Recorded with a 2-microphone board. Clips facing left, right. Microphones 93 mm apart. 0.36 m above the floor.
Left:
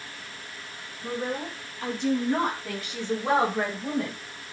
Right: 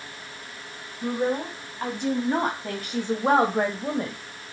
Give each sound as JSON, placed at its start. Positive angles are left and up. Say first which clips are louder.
{"t": 1.0, "sound": "a woman speaking", "louder": "right 5 dB", "side_deg": -60, "distance_m": 3.5}